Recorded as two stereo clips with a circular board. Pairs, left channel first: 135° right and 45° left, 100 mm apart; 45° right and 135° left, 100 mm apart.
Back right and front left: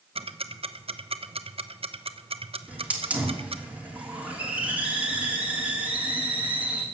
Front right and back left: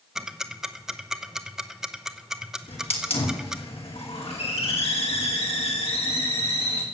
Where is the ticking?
50° left, 0.8 m.